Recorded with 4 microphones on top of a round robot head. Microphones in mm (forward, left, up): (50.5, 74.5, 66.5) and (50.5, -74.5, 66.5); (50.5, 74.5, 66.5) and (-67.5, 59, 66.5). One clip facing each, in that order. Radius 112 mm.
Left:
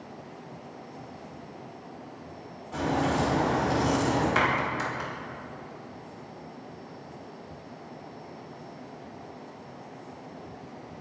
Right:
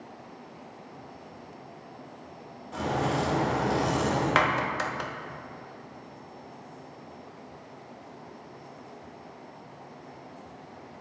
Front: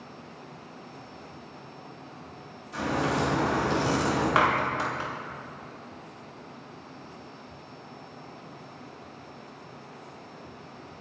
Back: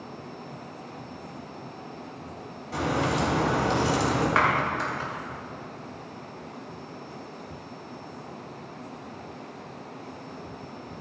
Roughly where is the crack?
Behind.